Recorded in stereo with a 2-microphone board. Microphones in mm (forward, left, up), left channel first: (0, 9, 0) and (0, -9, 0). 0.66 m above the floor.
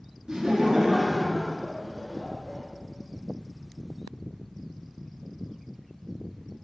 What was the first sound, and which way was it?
Laughter, 45° right (ahead or behind).